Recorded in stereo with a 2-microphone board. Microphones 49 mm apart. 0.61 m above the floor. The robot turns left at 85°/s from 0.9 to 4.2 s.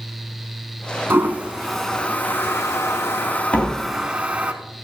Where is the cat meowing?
I don't hear a cat meowing.